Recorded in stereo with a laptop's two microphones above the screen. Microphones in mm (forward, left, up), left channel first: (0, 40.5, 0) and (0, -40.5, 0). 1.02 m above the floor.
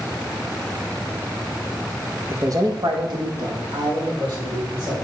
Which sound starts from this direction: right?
A man speaking, at 2.3 s.